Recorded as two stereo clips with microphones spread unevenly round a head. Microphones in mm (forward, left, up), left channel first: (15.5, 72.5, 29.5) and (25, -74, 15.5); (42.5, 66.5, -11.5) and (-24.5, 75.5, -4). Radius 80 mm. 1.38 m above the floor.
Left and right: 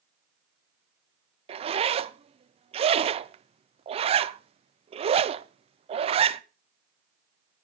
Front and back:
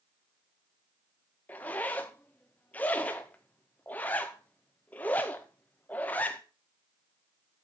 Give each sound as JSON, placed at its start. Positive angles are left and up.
{"t": 1.5, "sound": "a zipper", "azimuth_deg": -70, "distance_m": 0.5}